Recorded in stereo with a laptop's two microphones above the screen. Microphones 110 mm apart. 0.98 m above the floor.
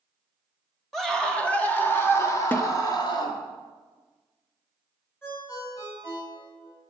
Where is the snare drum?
20° left (ahead or behind), 0.8 m.